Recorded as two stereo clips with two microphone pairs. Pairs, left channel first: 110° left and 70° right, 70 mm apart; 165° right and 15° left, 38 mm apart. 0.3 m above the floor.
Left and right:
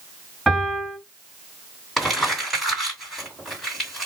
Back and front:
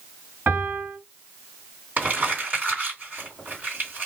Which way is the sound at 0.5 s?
20° left.